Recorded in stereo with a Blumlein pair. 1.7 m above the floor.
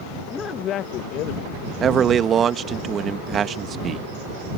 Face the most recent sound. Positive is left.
turn(degrees=-25)